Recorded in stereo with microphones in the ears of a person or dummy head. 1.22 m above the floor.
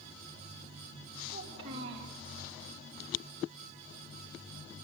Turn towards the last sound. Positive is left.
turn(degrees=-55)  # may be behind; listen again after turning